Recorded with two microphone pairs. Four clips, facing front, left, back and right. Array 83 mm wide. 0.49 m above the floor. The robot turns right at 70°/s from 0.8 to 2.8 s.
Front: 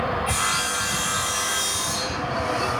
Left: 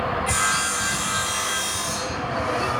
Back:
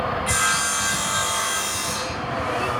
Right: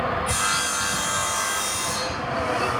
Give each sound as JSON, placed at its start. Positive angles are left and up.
{"t": 0.3, "sound": "sawing", "azimuth_deg": 150, "distance_m": 8.5}